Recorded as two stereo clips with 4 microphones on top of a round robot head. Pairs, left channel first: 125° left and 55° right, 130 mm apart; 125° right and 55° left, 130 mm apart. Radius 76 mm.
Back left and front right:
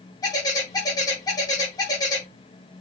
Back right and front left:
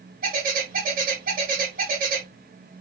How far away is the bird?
About 4 m.